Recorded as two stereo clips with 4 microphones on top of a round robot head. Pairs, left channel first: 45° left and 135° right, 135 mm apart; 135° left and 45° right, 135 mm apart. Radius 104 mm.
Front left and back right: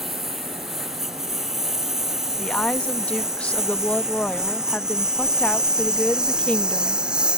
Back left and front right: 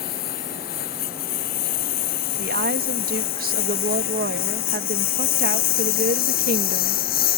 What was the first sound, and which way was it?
A lawn mower, 135° left.